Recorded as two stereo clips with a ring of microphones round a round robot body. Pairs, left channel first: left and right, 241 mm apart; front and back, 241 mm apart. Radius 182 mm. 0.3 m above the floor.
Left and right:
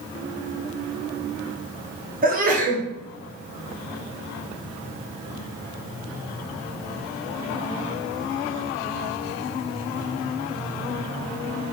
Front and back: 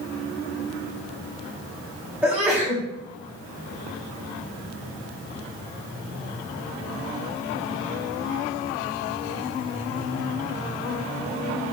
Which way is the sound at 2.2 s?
100° right.